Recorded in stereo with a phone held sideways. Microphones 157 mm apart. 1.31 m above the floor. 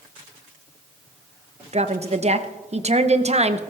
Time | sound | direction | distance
1.7 | a woman speaking | 45° right (ahead or behind) | 0.8 m